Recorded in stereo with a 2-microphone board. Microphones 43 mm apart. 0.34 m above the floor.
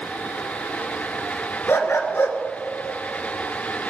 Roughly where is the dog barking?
Left.